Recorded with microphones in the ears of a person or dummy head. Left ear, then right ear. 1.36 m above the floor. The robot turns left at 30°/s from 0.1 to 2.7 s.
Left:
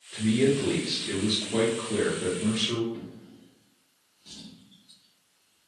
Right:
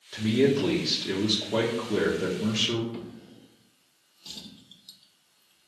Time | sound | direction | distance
0.1 | a man speaking | 55° right | 0.7 m
2.9 | a drawer | 45° right (ahead or behind) | 0.8 m